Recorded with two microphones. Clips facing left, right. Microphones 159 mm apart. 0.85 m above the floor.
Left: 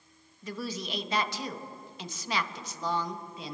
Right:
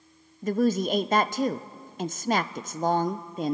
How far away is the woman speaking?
About 0.5 m.